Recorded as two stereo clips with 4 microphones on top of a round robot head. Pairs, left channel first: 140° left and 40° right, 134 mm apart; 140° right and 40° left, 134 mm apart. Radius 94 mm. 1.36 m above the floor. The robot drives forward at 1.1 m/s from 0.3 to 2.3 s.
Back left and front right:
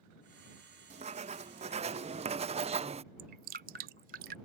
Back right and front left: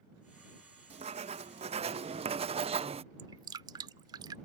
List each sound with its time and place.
0.9 s writing: straight ahead
3.2 s dripping: 20° right